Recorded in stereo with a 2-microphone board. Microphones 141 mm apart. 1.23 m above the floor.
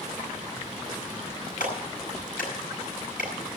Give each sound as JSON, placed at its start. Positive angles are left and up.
{"t": 1.6, "sound": "a clap", "side_deg": 80, "distance_m": 9.0}